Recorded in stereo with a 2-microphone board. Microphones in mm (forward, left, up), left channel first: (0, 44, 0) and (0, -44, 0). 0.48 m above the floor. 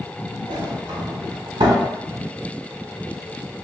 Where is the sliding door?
60° right (ahead or behind), 0.9 m.